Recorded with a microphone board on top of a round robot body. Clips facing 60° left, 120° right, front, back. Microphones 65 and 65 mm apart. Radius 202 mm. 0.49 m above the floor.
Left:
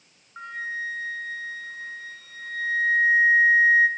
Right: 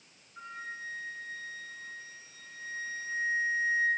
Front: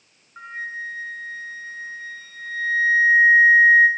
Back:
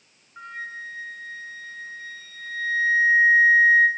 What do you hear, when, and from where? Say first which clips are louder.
0.4 s a flute: left 10 dB, front 4 dB; 65° left, 1.1 m